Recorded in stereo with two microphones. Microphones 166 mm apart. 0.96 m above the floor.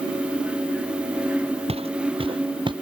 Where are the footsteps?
35° right (ahead or behind); by 2.7 s 30° right (ahead or behind).